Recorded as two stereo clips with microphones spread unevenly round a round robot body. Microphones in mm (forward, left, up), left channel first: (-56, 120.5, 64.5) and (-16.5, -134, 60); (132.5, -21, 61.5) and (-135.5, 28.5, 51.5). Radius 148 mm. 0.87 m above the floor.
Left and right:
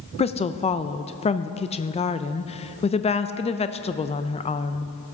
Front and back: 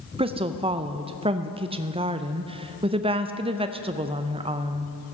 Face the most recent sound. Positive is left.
turn(degrees=135)